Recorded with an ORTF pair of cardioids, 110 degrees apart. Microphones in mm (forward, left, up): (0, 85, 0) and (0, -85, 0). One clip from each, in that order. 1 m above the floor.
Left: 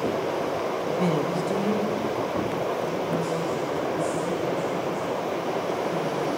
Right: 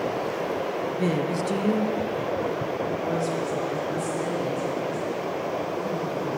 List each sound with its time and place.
0.9 s a woman speaking: 10° left, 0.5 m; by 6.3 s 75° right, 3.5 m